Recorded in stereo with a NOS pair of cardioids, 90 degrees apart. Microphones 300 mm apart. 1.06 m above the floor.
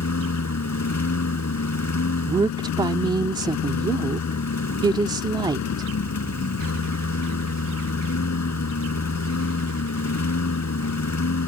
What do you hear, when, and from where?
0.0 s a lawn mower: 65° left
2.3 s a woman speaking: 15° right